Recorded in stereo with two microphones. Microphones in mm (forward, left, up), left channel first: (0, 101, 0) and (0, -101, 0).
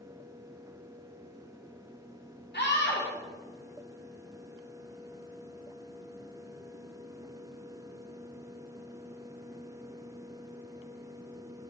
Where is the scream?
60° left (ahead or behind), 2.5 m.